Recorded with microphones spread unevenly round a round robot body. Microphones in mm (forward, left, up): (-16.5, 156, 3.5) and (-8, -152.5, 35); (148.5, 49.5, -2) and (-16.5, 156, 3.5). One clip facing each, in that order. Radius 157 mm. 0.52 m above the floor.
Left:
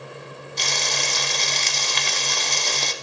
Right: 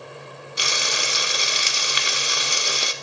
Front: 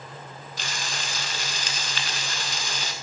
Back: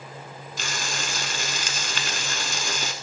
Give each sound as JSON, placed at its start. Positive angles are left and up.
{"t": 0.6, "sound": "frying", "azimuth_deg": -165, "distance_m": 0.6}